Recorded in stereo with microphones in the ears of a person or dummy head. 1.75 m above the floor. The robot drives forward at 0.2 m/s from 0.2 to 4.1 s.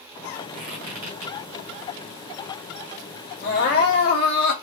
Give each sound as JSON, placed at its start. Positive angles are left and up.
{"t": 0.5, "sound": "a squeak", "side_deg": -40, "distance_m": 2.5}
{"t": 3.4, "sound": "crying", "side_deg": 45, "distance_m": 0.9}